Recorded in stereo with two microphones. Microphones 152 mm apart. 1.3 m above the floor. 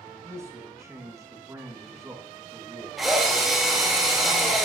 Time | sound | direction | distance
0.2 | a man speaking | 20° right (ahead or behind) | 1.7 m
3.0 | a drill | centre (ahead or behind) | 1.9 m